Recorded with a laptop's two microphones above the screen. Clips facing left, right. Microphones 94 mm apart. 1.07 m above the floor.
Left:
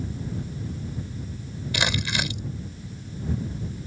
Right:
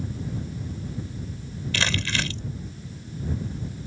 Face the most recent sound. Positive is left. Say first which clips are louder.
# left 1 dB
turn(degrees=15)  # may be behind; listen again after turning